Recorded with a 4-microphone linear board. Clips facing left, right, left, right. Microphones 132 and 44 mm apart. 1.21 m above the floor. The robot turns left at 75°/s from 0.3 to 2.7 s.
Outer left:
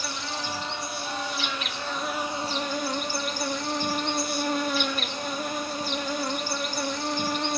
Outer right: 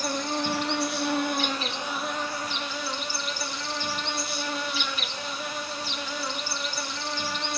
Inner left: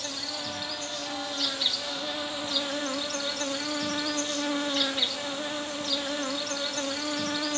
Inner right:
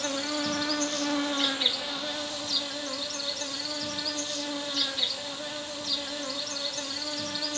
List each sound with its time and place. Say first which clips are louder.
0.0 s an insect: outer right 6 dB, inner right 6 dB; 50° right, 1.8 m; by 7.6 s 130° left, 1.8 m